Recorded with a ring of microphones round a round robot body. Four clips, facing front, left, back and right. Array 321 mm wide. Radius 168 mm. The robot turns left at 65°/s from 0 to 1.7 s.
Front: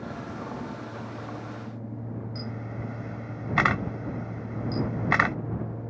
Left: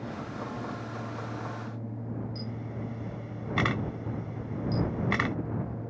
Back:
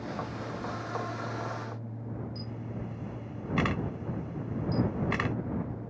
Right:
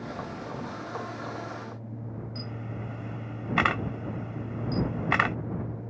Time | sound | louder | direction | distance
2.4 | a camera shutter | left 1 dB, front 3 dB | 30° right | ?